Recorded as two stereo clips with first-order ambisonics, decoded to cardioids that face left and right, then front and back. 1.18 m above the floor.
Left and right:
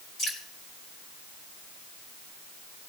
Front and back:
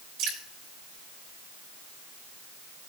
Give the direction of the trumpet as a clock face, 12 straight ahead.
I don't hear a trumpet.